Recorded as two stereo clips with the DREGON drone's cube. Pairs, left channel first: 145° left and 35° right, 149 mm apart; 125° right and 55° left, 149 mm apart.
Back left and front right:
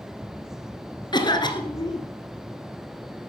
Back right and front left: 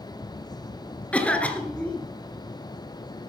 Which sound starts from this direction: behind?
A cough, at 1.1 s.